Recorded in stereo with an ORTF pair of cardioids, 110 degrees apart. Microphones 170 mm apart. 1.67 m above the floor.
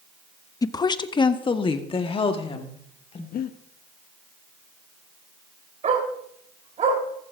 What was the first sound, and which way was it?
A woman speaking, 20° left.